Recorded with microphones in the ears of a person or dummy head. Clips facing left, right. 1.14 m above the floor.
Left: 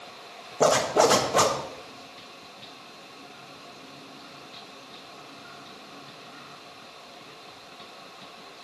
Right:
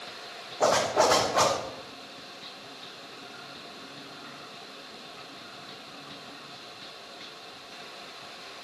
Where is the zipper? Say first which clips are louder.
Left 3 dB; 45° left (ahead or behind), 1.3 m.